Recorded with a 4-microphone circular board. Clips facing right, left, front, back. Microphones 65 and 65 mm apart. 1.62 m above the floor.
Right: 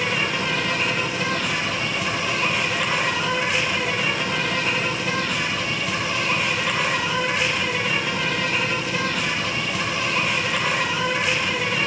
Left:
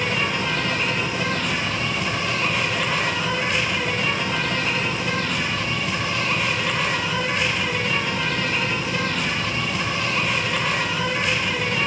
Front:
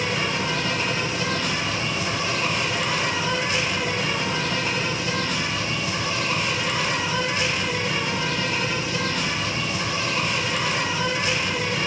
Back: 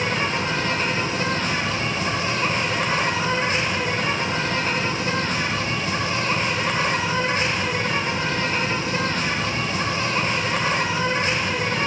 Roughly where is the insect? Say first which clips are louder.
Even, back 2 dB; behind.